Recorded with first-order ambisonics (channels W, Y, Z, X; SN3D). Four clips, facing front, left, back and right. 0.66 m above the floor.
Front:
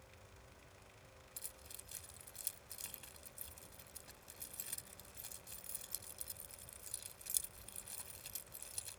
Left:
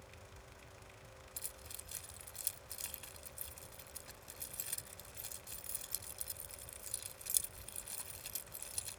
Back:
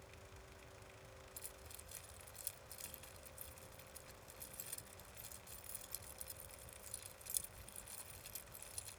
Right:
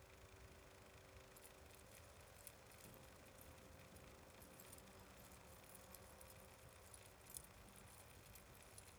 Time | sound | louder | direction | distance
1.4 | keys jangling | left 11 dB, front 1 dB | 75° left | ?